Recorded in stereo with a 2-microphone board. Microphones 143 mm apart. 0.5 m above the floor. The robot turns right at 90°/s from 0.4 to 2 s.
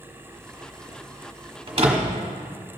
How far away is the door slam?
About 1.2 m.